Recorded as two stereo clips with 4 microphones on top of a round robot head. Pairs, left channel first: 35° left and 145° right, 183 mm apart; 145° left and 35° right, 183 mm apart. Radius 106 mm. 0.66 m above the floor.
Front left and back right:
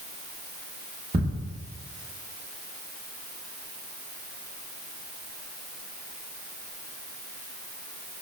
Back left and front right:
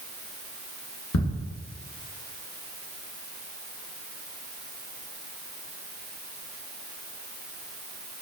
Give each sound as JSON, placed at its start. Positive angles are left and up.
{"t": 1.1, "sound": "ticking", "azimuth_deg": 150, "distance_m": 0.7}